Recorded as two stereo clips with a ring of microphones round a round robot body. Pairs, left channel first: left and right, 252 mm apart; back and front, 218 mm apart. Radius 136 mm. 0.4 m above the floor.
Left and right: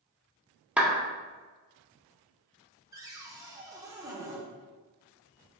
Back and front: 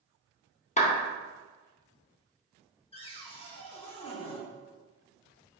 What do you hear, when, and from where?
0.8 s a clap: 170° right, 0.8 m
2.9 s a cupboard door: 155° right, 0.9 m